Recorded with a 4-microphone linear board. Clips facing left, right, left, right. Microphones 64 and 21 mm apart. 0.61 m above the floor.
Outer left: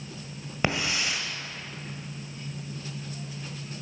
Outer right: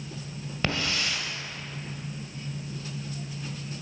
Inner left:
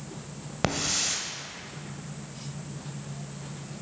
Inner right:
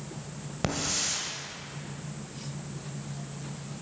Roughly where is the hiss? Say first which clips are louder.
Outer left 1 dB, inner left 3 dB; centre.